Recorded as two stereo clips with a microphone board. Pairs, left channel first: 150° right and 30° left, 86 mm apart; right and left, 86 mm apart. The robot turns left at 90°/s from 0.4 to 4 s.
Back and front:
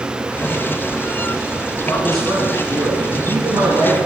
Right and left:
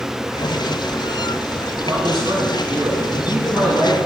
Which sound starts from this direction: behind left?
A man speaking, at 1.9 s.